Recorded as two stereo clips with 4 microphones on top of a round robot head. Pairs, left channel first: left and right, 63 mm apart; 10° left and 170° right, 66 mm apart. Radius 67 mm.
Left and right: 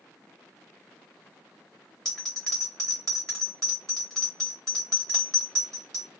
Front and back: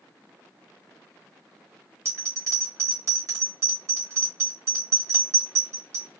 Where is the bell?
170° left, 0.9 m.